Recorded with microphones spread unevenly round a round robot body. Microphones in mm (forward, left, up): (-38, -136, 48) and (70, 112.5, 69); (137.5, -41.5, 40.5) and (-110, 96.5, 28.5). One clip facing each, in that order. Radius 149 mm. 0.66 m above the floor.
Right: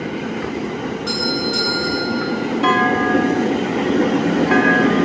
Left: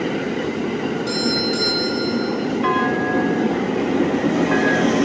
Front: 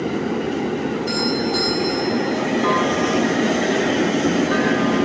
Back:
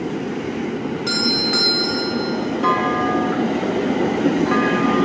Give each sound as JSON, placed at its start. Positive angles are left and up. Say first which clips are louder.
{"t": 1.1, "sound": "a doorbell", "louder": "left 1 dB, front 1 dB", "azimuth_deg": 155, "distance_m": 9.5}
{"t": 2.6, "sound": "a clunk", "louder": "right 2 dB, front 1 dB", "azimuth_deg": -130, "distance_m": 3.0}